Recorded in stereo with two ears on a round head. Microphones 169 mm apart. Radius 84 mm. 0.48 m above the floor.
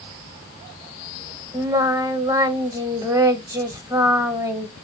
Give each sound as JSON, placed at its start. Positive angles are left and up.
{"t": 1.5, "sound": "singing", "side_deg": -20, "distance_m": 0.9}